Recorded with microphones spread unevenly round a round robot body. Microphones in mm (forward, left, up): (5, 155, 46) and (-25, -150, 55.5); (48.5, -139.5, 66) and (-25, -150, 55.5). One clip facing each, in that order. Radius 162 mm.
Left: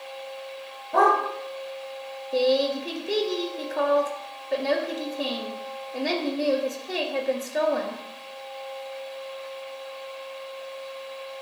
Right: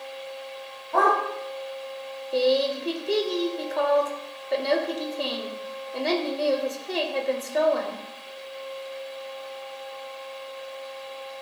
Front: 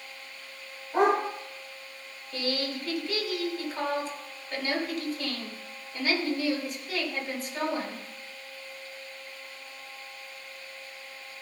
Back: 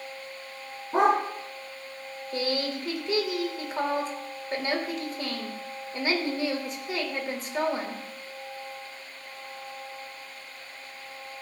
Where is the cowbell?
I don't hear a cowbell.